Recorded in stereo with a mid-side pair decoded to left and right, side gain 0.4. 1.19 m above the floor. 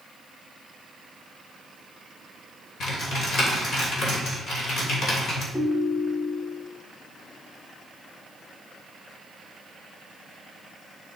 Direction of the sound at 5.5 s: 15° left.